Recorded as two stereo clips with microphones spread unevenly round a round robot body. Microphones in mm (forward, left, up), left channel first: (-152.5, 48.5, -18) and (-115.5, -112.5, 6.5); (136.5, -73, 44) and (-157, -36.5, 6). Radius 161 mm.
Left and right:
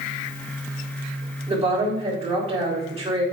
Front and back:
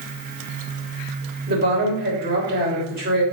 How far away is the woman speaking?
About 4.5 m.